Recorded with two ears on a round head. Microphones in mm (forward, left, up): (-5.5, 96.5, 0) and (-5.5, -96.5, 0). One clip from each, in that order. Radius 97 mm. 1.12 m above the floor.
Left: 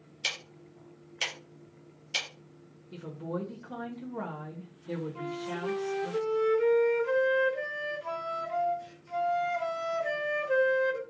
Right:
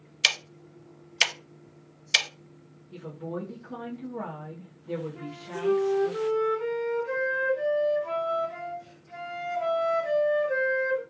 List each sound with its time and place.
0.2 s ticking: 50° right (ahead or behind), 0.5 m
2.9 s a woman speaking: 55° left (ahead or behind), 0.9 m
5.2 s a flute: 40° left (ahead or behind), 1.0 m